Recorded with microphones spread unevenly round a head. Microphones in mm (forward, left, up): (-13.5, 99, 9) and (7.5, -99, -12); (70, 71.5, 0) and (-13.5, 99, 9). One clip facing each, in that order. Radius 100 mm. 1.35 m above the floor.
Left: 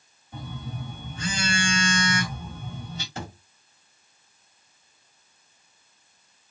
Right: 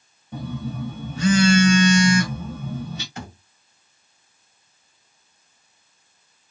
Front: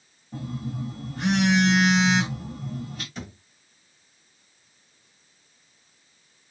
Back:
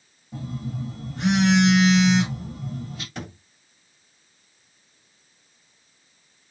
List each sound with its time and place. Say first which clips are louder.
0.3 s a phone buzzing: right 8 dB, even; 115° right, 1.7 m
3.1 s a thud: even, back 2 dB; 150° left, 2.5 m